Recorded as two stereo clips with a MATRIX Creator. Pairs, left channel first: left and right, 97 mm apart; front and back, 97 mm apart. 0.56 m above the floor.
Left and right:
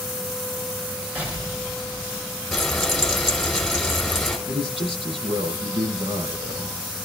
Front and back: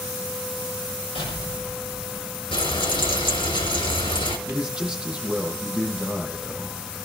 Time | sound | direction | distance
1.1 | an explosion | 15° right | 5.5 m
2.5 | frying | straight ahead | 3.5 m
4.5 | a man speaking | 100° right | 9 m